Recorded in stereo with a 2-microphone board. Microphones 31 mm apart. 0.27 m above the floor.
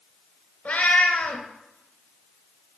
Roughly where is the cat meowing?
Left.